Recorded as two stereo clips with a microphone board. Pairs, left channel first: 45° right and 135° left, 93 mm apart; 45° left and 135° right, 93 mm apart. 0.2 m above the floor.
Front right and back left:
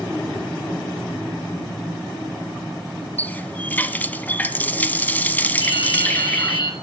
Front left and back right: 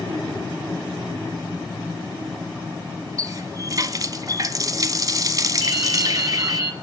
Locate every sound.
3.2 s a running tap: 110° right, 0.9 m
5.6 s dripping: 85° right, 4.5 m